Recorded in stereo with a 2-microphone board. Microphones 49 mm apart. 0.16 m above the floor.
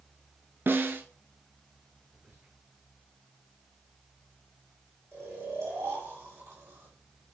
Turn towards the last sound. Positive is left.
turn(degrees=-80)